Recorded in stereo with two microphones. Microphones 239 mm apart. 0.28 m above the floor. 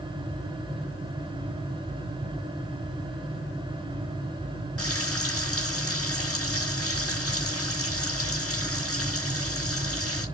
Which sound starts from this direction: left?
Frying, at 4.8 s.